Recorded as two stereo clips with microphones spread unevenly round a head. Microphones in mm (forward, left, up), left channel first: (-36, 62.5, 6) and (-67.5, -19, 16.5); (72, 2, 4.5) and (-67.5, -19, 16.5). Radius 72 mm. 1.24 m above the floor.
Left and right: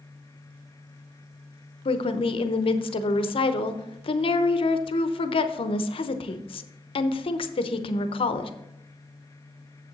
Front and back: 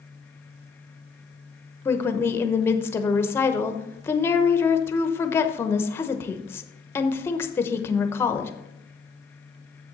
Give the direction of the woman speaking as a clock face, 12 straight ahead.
9 o'clock.